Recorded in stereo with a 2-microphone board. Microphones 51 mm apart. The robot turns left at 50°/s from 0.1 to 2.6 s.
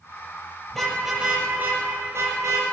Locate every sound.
0.7 s a car horn: 10° left (ahead or behind), 6.5 m; by 2.6 s 85° right, 6.5 m